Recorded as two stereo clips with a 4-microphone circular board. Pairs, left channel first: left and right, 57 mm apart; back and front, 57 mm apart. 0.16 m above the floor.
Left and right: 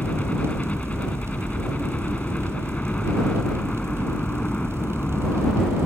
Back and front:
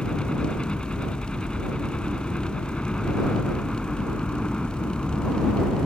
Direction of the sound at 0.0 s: 125° left.